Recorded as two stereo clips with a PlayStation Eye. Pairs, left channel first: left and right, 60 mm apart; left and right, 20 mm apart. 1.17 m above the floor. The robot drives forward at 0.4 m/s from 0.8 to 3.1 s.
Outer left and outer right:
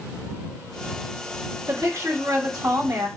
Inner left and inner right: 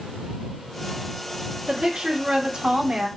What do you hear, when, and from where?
1.7 s a woman speaking: 55° right (ahead or behind), 1.5 m; by 3.1 s 65° right (ahead or behind), 1.4 m